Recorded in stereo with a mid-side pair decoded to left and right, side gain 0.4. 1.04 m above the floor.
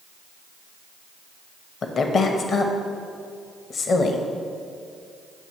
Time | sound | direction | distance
1.8 | a woman speaking | 55° left | 0.9 m